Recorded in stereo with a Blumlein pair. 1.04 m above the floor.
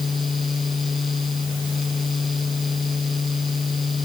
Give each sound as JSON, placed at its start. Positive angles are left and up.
{"t": 0.0, "sound": "a fan", "azimuth_deg": 15}